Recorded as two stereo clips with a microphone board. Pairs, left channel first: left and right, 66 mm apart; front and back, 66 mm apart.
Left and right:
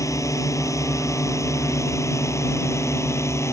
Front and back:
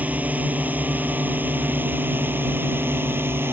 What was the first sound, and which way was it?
A drone, 115° left.